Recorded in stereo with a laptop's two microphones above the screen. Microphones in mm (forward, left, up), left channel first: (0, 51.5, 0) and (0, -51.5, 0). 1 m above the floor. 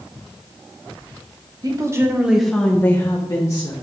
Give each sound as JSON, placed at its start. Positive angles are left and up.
{"t": 1.6, "sound": "a woman speaking", "side_deg": -35, "distance_m": 0.9}